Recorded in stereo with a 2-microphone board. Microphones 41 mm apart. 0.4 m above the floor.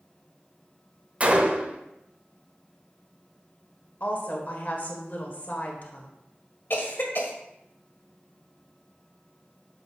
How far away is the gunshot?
About 0.9 m.